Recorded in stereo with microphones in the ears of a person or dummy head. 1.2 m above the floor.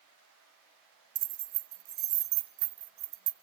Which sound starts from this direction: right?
Keys jangling, at 1.1 s.